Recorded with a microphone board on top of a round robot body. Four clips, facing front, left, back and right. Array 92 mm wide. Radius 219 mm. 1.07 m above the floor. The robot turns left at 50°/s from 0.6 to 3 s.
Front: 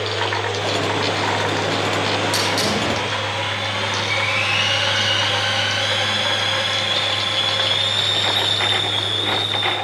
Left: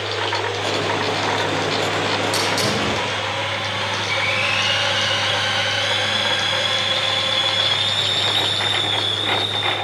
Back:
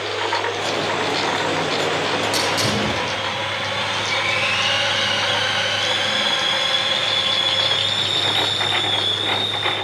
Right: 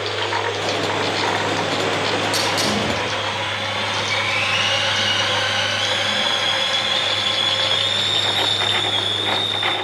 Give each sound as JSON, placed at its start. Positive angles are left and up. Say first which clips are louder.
{"t": 2.3, "sound": "a hiss", "louder": "even, even", "azimuth_deg": 30, "distance_m": 7.0}